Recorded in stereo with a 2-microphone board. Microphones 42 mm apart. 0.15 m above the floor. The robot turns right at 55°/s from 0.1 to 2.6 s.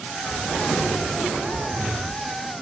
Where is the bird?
110° left, 4 m; by 1.7 s 170° right, 4 m.